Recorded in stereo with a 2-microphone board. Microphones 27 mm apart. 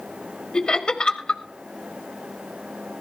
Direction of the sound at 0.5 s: 35° left (ahead or behind).